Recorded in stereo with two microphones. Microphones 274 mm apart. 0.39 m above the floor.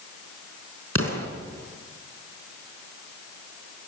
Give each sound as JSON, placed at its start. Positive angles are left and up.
{"t": 0.9, "sound": "an explosion", "side_deg": -55, "distance_m": 4.5}